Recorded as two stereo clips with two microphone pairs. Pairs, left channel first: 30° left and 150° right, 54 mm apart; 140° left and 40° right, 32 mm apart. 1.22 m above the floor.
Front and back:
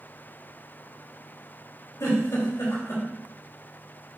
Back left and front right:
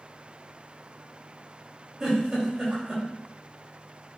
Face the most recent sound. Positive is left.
turn(degrees=25)